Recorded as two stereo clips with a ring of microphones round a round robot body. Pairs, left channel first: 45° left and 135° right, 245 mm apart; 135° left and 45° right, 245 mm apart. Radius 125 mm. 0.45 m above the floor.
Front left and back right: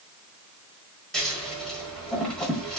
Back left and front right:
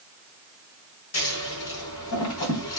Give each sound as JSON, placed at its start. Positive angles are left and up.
{"t": 1.1, "sound": "scissors", "azimuth_deg": 135, "distance_m": 1.5}